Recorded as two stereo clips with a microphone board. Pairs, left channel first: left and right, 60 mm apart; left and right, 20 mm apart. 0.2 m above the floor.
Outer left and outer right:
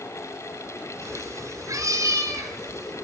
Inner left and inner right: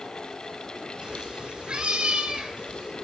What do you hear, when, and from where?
1.0 s a cat meowing: 60° right (ahead or behind), 0.6 m; by 2.9 s 65° right (ahead or behind), 2.5 m